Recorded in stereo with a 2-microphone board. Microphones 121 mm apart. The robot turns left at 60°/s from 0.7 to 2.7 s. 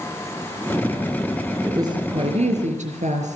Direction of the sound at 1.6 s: 20° right.